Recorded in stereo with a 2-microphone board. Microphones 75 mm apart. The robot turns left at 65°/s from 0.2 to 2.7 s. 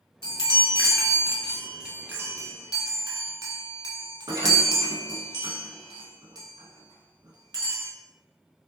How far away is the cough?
I don't hear a cough.